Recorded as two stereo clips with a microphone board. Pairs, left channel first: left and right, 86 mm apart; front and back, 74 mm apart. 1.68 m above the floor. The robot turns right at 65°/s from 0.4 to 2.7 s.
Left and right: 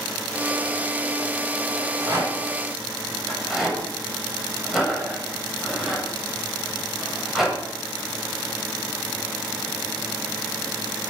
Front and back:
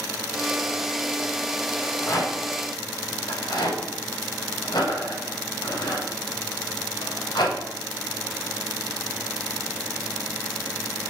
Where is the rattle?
65° right, 8.5 m; by 7.6 s 5° right, 8.5 m.